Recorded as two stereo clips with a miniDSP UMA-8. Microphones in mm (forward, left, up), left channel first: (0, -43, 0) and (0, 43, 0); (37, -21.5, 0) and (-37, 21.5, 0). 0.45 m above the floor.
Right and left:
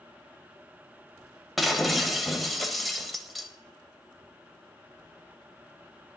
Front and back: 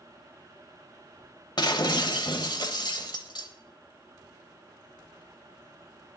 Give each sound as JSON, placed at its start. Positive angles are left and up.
{"t": 1.6, "sound": "breaking glass", "azimuth_deg": 0, "distance_m": 1.1}